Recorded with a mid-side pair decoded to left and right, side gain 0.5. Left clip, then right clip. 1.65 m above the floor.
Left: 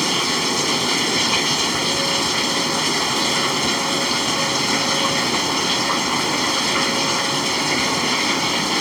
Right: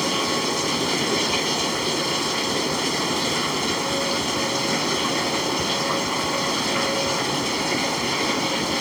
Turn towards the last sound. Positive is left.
turn(degrees=35)